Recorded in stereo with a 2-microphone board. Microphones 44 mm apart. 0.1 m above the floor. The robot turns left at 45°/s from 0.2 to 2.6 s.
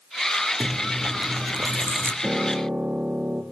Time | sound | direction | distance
0.6 | chewing | 55° right | 2 m
2.2 | a piano | 25° right (ahead or behind) | 2.5 m